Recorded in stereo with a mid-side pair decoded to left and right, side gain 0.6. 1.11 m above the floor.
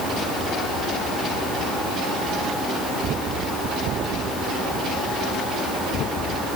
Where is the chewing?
I don't hear chewing.